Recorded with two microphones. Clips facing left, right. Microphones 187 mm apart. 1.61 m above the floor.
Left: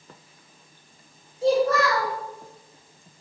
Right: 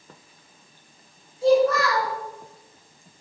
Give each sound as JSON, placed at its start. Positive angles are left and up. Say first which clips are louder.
{"t": 1.4, "sound": "a child speaking", "louder": "right 2 dB", "side_deg": 25, "distance_m": 1.1}